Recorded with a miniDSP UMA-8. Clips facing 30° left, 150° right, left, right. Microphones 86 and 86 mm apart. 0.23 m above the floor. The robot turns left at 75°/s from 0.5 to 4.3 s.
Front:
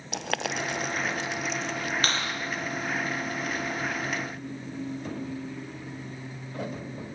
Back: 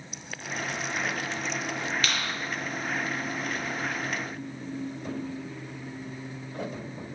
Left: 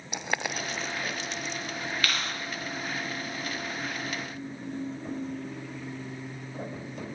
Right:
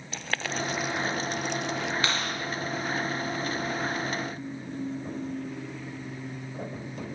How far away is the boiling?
About 0.8 m.